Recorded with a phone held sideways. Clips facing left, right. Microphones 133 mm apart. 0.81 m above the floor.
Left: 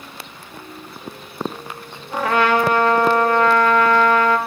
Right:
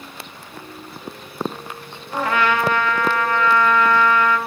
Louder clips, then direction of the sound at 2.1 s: Left 3 dB; 65° left (ahead or behind).